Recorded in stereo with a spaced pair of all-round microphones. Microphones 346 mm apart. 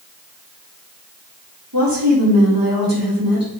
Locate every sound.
1.7 s a woman speaking: 80° right, 3.5 m